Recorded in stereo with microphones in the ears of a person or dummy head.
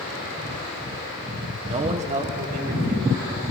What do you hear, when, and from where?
1.7 s a man speaking: 25° right (ahead or behind), 0.8 m; by 3.4 s 50° right (ahead or behind), 3 m